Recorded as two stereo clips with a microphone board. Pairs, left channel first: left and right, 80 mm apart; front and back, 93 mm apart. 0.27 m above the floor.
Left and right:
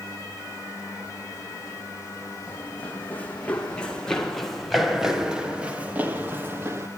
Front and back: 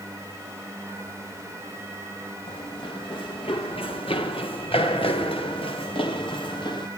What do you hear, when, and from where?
2.5 s running footsteps: 25° left, 4.5 m; by 6.9 s 30° right, 3.5 m